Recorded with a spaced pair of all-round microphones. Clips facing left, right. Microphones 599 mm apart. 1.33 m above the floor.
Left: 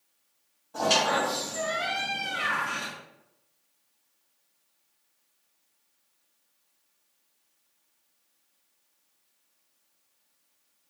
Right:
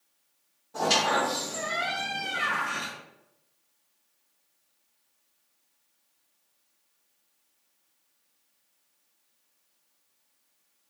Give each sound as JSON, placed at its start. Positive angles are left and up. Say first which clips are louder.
{"t": 0.7, "sound": "a squeak", "louder": "even", "side_deg": -5, "distance_m": 1.1}